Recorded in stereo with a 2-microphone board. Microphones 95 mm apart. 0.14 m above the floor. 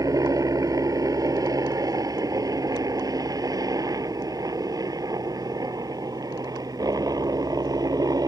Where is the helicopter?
40° right (ahead or behind).